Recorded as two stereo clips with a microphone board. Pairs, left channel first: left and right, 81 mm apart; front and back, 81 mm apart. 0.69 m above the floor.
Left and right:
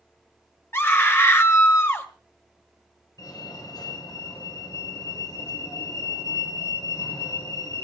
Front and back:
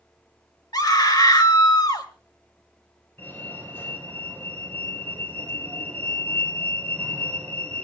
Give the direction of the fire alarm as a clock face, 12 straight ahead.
10 o'clock.